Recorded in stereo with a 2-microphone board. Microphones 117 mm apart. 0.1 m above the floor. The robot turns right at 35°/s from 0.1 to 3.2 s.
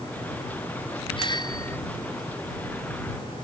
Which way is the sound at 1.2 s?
45° left (ahead or behind).